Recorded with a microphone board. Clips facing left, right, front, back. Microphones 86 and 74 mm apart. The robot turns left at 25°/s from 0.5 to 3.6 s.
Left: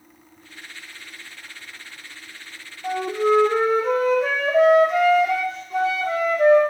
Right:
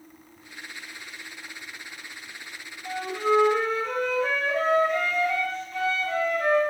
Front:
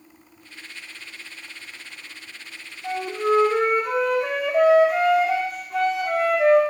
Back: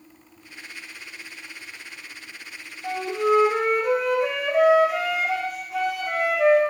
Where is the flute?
115° left, 1.9 m; by 6.6 s 95° left, 1.9 m.